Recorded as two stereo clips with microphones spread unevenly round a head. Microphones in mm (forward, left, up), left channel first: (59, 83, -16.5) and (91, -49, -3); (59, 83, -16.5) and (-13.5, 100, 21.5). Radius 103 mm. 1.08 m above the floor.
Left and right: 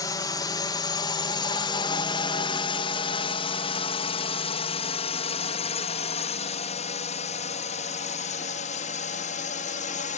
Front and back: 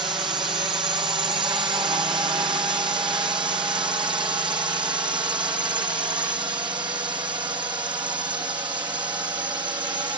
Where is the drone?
155° left; by 10.2 s 130° left.